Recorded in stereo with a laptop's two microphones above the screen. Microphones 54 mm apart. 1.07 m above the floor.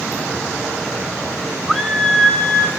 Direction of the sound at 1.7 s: Centre (ahead or behind).